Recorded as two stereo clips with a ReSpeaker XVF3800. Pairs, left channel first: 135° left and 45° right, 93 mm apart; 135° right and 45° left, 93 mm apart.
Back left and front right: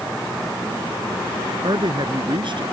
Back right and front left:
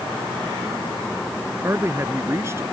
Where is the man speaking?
15° right.